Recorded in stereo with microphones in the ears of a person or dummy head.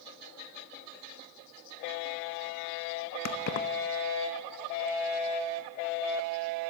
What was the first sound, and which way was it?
Keys jangling, 55° left (ahead or behind).